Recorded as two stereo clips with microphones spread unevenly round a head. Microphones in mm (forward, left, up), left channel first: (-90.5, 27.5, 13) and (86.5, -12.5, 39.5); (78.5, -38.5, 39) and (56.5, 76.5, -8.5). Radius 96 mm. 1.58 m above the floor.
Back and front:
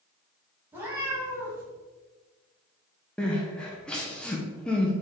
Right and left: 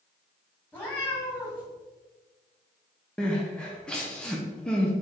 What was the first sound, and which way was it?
A cat meowing, 70° right.